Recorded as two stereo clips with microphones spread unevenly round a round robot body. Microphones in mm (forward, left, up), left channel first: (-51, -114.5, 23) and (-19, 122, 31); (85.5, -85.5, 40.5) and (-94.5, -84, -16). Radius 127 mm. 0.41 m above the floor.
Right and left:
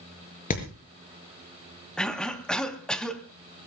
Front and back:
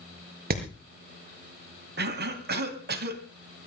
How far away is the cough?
About 2.5 m.